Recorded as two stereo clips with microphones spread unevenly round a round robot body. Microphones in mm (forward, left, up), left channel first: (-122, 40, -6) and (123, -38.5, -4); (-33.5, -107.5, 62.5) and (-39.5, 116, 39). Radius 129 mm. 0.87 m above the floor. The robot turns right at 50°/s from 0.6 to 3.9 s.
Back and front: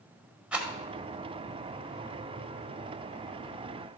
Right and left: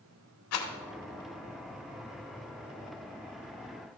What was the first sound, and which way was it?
A rattle, 105° right.